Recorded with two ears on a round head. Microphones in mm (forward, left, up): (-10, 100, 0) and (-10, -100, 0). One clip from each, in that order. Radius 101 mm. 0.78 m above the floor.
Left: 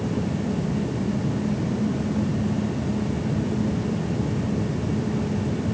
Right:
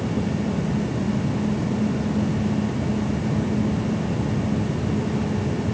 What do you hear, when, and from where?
Only background noise.